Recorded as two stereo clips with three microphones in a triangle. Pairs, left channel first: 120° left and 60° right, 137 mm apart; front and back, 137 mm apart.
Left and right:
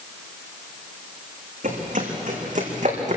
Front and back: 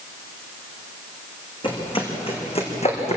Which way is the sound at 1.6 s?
50° right.